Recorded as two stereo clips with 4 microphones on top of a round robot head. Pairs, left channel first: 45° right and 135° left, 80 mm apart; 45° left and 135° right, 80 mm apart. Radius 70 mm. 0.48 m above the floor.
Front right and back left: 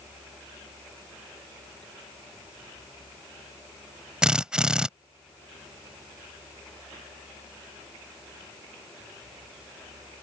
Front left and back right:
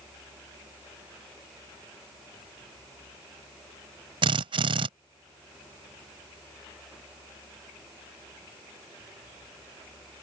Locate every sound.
4.2 s a drill: 145° right